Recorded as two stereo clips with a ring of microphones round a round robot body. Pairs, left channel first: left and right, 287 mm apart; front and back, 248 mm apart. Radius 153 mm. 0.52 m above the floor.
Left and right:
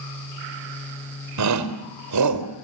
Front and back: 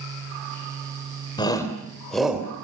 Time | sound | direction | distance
1.4 | a shout | 75° right | 3 m